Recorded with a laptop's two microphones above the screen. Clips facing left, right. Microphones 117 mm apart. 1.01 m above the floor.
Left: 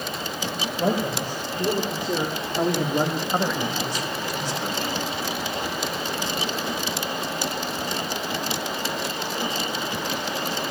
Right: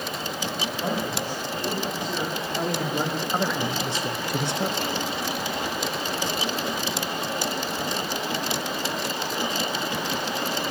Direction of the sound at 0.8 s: 50° left (ahead or behind).